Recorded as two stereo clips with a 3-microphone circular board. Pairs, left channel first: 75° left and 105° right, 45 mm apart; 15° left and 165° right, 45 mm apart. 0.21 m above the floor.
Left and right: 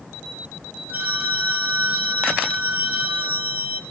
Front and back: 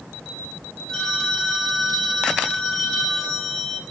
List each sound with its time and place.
0.9 s a phone ringing: 65° right, 2.5 m